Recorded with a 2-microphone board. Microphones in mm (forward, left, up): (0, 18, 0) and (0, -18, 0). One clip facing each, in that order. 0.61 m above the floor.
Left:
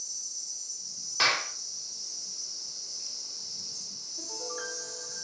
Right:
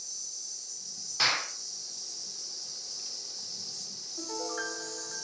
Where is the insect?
50° right (ahead or behind), 1.2 m.